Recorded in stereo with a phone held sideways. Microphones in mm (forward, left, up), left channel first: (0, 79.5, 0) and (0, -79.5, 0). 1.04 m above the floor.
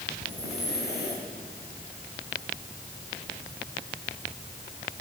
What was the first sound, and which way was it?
Breathing, 75° left (ahead or behind).